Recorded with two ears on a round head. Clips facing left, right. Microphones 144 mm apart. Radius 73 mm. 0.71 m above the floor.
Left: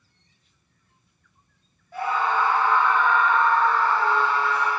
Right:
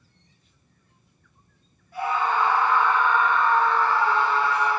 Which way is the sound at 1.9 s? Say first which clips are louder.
Even; 65° left (ahead or behind).